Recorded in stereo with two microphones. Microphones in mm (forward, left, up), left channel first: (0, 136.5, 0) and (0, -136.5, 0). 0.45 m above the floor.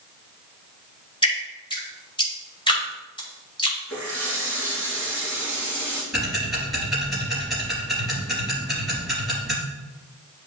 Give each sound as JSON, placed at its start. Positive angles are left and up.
{"t": 1.2, "sound": "dripping", "side_deg": 15, "distance_m": 1.9}
{"t": 3.9, "sound": "a running tap", "side_deg": 5, "distance_m": 3.5}
{"t": 6.1, "sound": "ticking", "side_deg": 0, "distance_m": 3.0}